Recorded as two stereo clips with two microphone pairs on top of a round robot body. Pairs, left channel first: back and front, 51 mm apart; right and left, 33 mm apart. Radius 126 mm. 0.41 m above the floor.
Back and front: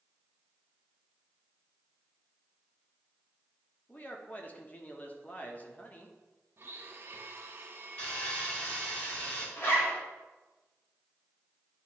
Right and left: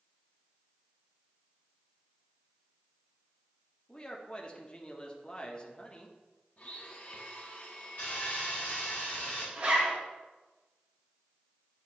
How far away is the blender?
About 0.9 m.